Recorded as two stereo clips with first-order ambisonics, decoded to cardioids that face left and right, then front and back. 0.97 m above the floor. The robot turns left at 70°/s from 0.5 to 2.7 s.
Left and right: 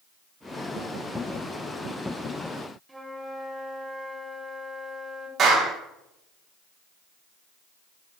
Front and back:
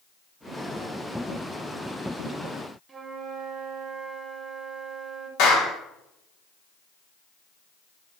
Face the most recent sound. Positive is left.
turn(degrees=-30)